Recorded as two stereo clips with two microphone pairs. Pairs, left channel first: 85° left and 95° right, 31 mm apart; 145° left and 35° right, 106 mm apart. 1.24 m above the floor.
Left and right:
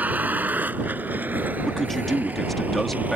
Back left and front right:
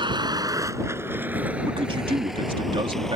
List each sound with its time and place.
0.0 s a vehicle: 75° right; by 3.2 s 130° right
1.6 s a man speaking: 5° right